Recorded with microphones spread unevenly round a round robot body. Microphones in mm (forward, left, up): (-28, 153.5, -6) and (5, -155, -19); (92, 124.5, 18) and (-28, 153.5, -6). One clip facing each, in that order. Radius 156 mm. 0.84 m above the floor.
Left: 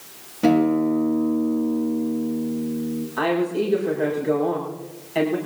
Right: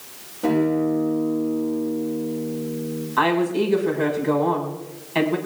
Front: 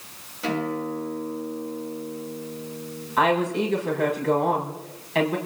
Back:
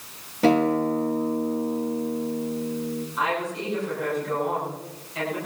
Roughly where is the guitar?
Behind left.